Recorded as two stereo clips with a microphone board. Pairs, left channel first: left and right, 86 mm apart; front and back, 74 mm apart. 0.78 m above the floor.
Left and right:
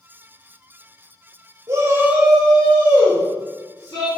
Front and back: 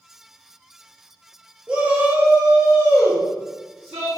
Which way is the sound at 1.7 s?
115° right.